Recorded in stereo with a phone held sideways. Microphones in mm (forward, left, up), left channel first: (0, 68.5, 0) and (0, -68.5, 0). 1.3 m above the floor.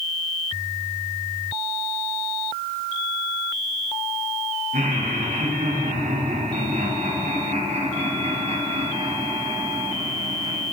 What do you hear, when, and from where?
4.7 s laughter: 85° right, 4 m; by 10.6 s 35° right (ahead or behind), 4 m